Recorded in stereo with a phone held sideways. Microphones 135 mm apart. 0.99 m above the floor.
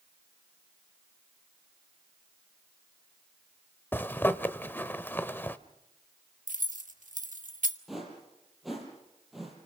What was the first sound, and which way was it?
A zipper, 15° left (ahead or behind).